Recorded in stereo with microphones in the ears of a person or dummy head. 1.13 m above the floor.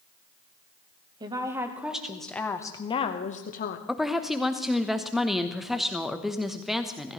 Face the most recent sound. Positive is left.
turn(degrees=-5)  # may be behind; listen again after turning